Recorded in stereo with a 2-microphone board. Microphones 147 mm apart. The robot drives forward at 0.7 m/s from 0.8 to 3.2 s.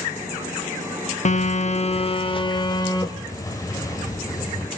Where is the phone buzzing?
50° left (ahead or behind), 0.8 m; by 4.7 s 25° left (ahead or behind), 1.6 m.